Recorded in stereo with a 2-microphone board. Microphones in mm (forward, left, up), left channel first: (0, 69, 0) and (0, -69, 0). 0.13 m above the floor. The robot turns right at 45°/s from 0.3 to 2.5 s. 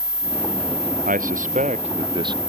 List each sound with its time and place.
1.1 s a man speaking: 90° right; by 2.4 s 30° right